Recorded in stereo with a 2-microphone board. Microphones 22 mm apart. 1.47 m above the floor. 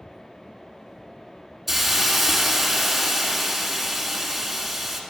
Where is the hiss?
10° right (ahead or behind), 1.2 m.